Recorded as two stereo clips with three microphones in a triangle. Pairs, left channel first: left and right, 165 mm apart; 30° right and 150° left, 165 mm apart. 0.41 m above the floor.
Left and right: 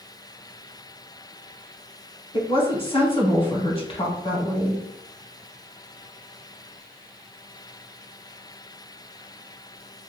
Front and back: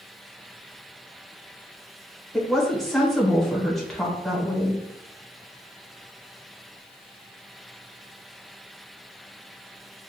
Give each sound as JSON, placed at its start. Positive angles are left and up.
{"t": 2.3, "sound": "a woman speaking", "azimuth_deg": 55, "distance_m": 1.1}